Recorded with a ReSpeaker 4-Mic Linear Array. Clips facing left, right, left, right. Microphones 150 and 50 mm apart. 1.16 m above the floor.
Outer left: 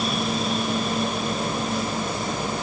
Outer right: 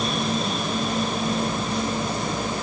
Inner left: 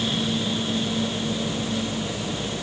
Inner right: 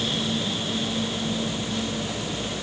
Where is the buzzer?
No buzzer in this recording.